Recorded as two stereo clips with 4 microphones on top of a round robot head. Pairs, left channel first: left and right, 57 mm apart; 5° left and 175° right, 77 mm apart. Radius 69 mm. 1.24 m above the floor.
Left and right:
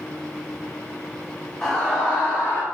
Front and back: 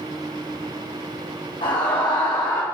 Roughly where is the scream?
Ahead.